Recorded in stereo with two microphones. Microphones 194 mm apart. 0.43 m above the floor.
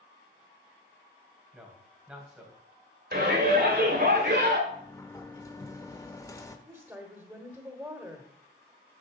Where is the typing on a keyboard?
No typing on a keyboard in this recording.